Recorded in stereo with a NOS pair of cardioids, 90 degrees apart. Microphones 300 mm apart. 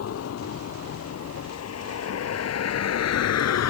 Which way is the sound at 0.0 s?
55° left.